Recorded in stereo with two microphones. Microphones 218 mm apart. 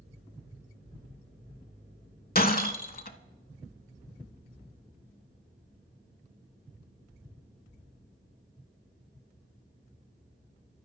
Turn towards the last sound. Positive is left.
turn(degrees=40)  # may be behind; listen again after turning